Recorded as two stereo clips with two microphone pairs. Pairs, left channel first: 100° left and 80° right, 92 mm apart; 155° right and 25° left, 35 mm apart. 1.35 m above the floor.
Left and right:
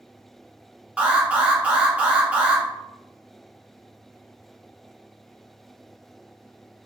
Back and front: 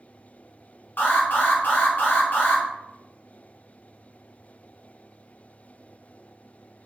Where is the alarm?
150° right, 0.8 m.